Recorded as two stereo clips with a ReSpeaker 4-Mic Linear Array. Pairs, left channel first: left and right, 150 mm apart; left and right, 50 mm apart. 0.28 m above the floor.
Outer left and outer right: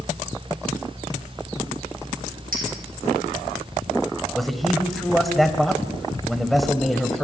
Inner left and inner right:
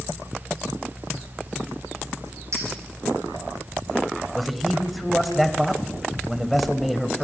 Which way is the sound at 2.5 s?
80° right.